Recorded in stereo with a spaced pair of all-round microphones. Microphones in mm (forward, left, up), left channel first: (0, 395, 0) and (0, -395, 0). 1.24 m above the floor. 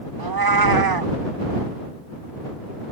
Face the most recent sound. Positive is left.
turn(degrees=-30)  # may be behind; listen again after turning